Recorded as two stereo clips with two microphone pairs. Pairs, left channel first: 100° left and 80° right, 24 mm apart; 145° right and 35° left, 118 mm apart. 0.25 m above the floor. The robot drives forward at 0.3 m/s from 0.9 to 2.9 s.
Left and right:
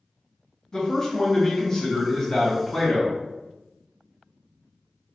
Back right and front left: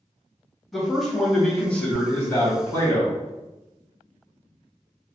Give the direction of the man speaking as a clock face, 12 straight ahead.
8 o'clock.